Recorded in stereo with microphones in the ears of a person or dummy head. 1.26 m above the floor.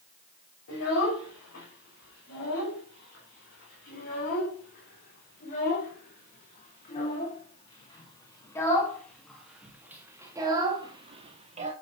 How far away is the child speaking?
About 5.5 m.